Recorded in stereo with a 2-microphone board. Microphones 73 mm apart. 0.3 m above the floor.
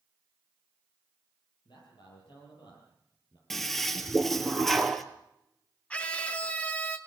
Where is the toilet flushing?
5° left (ahead or behind), 1.4 m.